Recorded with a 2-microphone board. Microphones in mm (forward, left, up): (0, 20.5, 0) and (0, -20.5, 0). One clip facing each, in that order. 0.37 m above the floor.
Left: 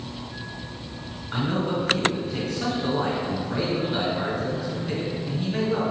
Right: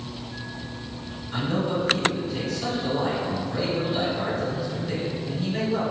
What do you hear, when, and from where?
1.3 s a man speaking: 45° left (ahead or behind), 1.9 m